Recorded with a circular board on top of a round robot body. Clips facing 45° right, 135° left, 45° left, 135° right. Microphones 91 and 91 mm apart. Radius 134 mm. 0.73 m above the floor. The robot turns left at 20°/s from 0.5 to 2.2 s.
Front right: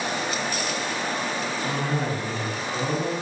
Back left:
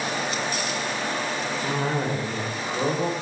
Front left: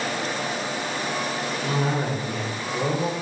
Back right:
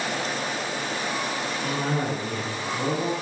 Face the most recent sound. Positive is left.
turn(degrees=110)